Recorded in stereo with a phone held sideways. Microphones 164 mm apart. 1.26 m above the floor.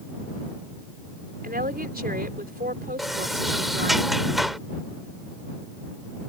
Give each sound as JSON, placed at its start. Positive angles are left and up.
{"t": 1.4, "sound": "a woman speaking", "side_deg": -70}
{"t": 3.0, "sound": "a sliding door", "side_deg": 0}